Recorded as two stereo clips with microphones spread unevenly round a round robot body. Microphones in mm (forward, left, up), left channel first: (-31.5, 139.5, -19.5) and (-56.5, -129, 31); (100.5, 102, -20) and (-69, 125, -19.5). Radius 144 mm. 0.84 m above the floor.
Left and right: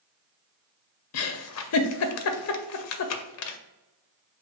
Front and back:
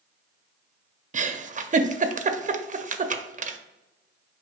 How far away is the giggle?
About 0.5 m.